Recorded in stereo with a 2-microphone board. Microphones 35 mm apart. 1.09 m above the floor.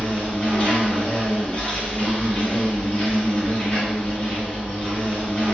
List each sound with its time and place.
0.0 s an insect: 30° left (ahead or behind), 1.2 m